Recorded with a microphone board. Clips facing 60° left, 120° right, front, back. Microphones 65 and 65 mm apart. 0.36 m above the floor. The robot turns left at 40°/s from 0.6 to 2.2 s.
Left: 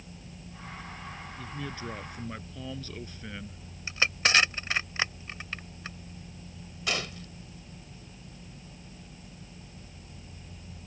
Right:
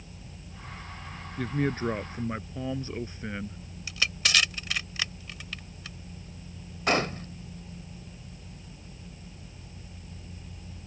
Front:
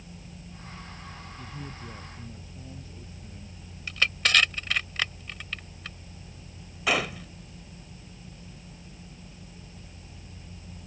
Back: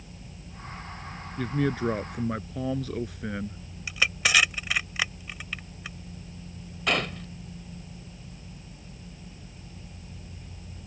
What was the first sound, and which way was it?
A man speaking, 155° right.